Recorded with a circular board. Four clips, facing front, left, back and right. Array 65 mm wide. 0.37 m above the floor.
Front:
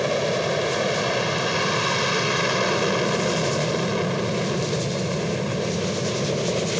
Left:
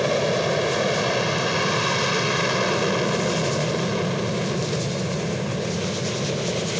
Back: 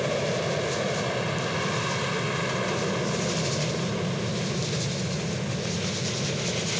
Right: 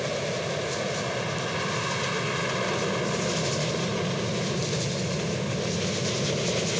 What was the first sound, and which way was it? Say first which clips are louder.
An aircraft: left 8 dB, front 4 dB; 55° left.